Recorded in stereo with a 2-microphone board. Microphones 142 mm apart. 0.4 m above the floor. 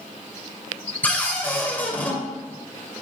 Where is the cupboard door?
10° left (ahead or behind), 1.7 m.